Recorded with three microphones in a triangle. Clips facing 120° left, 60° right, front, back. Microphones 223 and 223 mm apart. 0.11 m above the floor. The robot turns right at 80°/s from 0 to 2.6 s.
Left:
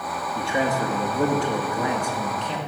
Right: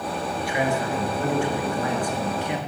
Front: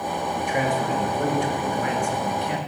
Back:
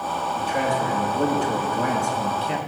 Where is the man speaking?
60° left, 2.5 m; by 2.6 s 125° right, 2.5 m.